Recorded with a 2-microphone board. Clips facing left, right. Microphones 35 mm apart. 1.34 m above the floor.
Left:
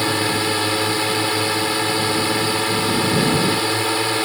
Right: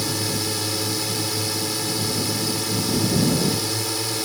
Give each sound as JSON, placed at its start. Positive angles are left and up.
{"t": 0.0, "sound": "a drone", "side_deg": 45}